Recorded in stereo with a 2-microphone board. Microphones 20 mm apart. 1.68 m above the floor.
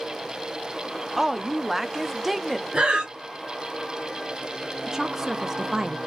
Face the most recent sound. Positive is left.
turn(degrees=-25)  # may be behind; listen again after turning